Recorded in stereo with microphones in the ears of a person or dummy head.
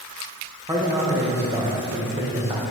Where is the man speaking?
15° right (ahead or behind), 1.5 m.